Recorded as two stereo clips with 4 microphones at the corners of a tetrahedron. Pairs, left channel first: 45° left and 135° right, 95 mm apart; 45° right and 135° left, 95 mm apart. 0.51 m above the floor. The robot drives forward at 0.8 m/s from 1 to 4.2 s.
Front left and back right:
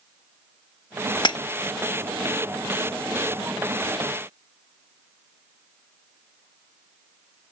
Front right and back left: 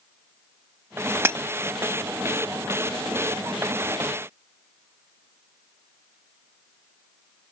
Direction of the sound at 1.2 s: 70° left.